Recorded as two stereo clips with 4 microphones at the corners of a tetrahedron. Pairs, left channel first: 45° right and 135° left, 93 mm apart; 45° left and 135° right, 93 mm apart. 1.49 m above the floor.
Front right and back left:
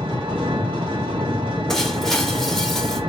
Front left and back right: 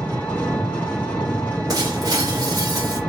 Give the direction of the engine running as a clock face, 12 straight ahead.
8 o'clock.